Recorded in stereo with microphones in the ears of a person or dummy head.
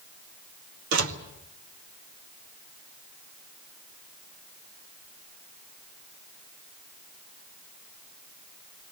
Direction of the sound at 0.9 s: 65° right (ahead or behind).